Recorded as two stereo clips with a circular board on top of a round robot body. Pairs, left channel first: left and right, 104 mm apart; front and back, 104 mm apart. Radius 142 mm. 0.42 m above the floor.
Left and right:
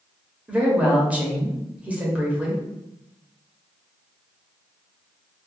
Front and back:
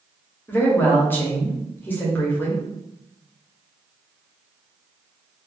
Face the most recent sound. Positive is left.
turn(degrees=-35)